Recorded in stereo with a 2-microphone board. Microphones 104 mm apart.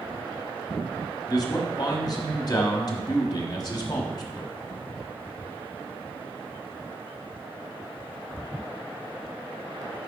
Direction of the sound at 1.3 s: 45° left (ahead or behind).